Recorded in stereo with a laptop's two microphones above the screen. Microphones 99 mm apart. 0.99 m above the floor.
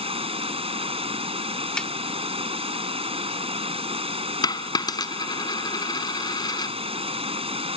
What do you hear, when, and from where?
0.0 s running water: 80° right
1.8 s a snare drum: 10° left (ahead or behind)
4.4 s a dropped coin: 45° left (ahead or behind)